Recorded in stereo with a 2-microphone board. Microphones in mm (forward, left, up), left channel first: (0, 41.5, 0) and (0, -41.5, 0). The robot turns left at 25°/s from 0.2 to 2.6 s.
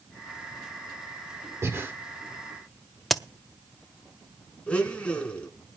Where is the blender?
15° left (ahead or behind), 1.9 m.